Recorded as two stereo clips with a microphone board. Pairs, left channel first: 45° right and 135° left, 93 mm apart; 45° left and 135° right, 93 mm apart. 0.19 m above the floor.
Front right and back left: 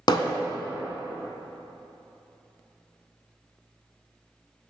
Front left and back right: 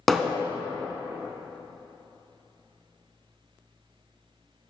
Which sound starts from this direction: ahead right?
Hammering, at 0.1 s.